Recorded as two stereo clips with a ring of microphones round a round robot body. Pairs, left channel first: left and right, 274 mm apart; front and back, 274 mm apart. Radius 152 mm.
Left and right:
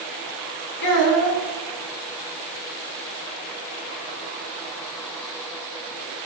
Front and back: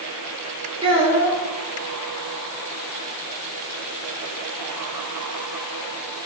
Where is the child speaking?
110° left, 3.5 m.